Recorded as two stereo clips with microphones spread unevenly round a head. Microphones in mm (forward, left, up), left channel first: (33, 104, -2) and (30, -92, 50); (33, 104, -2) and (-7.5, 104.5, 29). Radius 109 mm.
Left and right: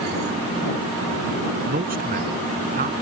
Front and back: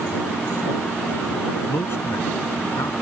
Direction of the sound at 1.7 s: 50° right.